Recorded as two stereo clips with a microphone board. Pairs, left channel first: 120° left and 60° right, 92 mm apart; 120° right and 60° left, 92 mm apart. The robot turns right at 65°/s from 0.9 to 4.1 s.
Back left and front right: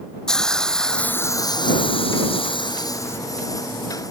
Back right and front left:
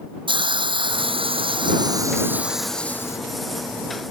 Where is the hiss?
35° left; by 3.2 s 175° right.